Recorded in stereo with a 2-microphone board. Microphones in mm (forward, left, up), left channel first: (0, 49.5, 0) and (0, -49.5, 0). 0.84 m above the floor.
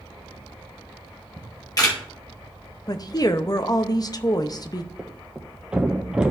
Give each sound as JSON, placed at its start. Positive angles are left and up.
{"t": 1.4, "sound": "a camera shutter", "side_deg": 40, "distance_m": 2.5}
{"t": 2.9, "sound": "a woman speaking", "side_deg": 40, "distance_m": 0.7}
{"t": 5.0, "sound": "a thud", "side_deg": -10, "distance_m": 1.4}